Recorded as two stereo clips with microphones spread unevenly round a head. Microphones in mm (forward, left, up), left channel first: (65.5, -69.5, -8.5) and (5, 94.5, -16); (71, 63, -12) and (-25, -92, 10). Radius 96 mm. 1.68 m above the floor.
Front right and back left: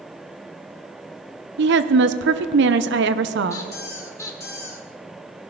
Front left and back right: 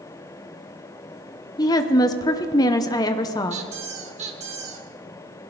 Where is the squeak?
135° right, 1.6 m.